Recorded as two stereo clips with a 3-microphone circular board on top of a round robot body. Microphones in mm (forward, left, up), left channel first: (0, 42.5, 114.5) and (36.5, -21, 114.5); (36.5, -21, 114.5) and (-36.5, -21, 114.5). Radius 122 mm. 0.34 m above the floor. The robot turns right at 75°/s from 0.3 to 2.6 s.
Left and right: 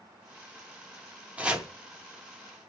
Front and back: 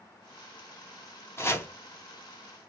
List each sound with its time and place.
1.4 s chopping: 5° right, 1.0 m; by 1.7 s 20° left, 1.0 m